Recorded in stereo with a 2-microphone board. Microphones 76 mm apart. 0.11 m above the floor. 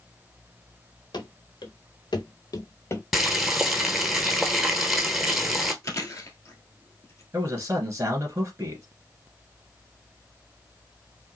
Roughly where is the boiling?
Centre.